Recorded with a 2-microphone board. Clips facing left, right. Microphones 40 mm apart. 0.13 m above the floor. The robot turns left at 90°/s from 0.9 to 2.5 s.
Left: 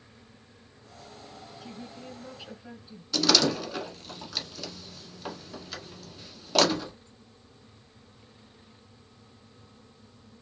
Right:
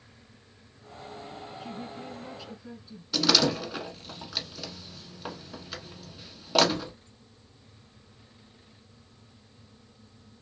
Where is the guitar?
I don't hear a guitar.